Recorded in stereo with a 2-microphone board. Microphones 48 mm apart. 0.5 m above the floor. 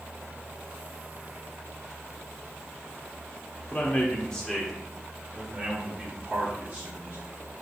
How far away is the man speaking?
About 1.1 m.